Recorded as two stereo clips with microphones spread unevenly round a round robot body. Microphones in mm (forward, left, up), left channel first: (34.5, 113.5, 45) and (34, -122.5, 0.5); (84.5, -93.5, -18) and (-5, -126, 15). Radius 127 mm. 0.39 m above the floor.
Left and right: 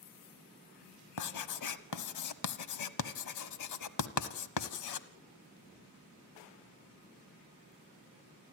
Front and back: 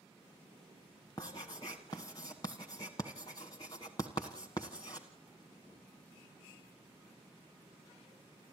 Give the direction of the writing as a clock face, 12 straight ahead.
9 o'clock.